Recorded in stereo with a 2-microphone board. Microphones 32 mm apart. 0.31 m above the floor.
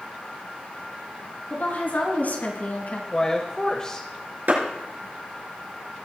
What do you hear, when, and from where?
1.5 s a woman speaking: 70° left (ahead or behind), 4.5 m; by 3.0 s 60° left (ahead or behind), 3 m
3.1 s a woman speaking: 25° left (ahead or behind), 1.4 m
4.5 s a clap: 75° right (ahead or behind), 5 m